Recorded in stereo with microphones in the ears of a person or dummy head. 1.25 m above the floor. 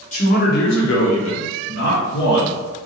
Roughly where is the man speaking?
Left.